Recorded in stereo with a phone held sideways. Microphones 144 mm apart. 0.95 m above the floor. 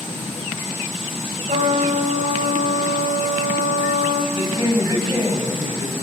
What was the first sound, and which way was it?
A trumpet, 60° right (ahead or behind).